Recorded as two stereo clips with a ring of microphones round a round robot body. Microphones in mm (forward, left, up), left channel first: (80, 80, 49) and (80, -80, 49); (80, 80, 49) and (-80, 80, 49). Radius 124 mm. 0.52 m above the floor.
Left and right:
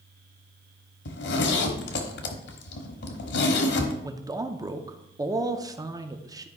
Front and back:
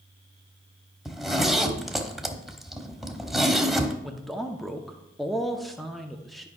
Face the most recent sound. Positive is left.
turn(degrees=-90)